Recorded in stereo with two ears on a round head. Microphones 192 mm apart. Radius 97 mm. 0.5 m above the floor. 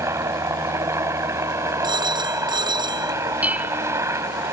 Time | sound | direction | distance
0.0 | a helicopter | 15° right (ahead or behind) | ?
1.8 | a phone ringing | 20° right (ahead or behind) | ?
3.4 | dishes clattering | 5° right (ahead or behind) | ?